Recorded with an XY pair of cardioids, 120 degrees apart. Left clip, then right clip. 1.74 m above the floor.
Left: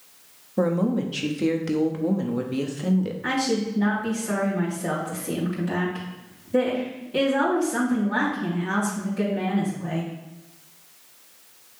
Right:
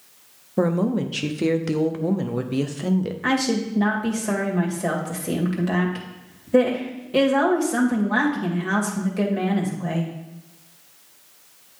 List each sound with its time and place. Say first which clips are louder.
0.6 s a woman speaking: right 1 dB; 20° right, 0.7 m
3.2 s a woman speaking: right 2 dB; 55° right, 2 m